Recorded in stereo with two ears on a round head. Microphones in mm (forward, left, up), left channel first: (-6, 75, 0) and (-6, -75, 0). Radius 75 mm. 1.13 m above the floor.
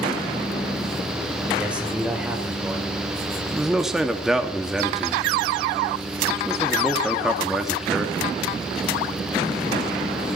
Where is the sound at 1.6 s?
10° right (ahead or behind), 5.5 m.